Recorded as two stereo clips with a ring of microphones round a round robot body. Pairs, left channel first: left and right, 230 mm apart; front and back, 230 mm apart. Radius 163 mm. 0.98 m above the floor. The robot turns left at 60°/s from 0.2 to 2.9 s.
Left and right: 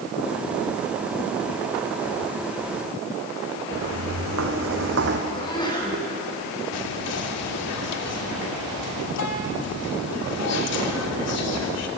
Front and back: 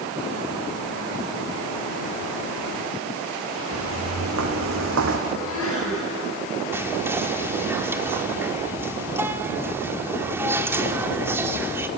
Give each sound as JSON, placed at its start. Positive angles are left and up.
{"t": 3.7, "sound": "footsteps", "azimuth_deg": -135, "distance_m": 3.5}
{"t": 5.3, "sound": "a sneeze", "azimuth_deg": 20, "distance_m": 10.0}
{"t": 6.7, "sound": "whispering", "azimuth_deg": 100, "distance_m": 3.0}